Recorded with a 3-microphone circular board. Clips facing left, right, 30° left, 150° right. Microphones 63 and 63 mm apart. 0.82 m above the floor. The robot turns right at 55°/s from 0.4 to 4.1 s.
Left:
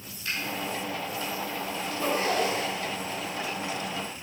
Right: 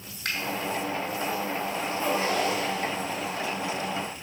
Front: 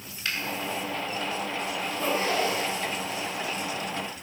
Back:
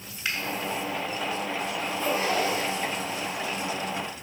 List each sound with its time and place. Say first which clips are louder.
0.2 s a finger snap: right 2 dB, back 1 dB; 75° right, 2.5 m
1.8 s a zipper: even, even; 100° left, 3 m; by 3.4 s 175° right, 3 m